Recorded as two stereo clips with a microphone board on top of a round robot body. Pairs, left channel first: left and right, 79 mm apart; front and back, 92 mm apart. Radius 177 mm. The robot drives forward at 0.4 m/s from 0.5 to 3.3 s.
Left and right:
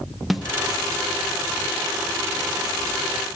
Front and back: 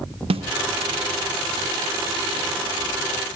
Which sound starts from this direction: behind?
A snare drum, at 0.3 s.